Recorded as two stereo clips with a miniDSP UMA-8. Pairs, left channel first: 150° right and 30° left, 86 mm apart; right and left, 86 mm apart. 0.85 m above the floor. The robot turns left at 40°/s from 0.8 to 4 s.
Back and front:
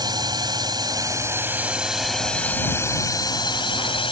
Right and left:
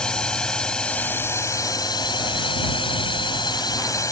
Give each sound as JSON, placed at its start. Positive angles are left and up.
{"t": 0.0, "sound": "a drone", "azimuth_deg": -10}